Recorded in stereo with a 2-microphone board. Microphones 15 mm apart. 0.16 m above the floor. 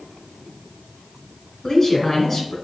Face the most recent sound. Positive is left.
turn(degrees=5)  # may be behind; listen again after turning